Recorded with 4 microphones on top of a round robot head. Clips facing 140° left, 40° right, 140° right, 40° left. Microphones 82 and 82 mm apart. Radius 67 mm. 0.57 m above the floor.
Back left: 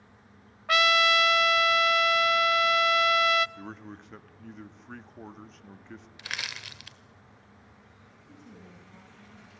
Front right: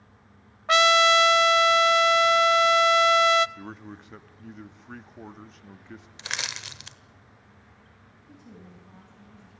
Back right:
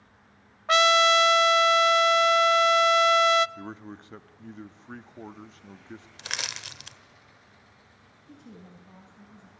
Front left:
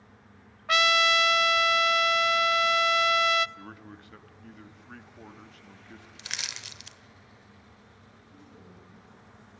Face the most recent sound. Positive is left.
turn(degrees=-120)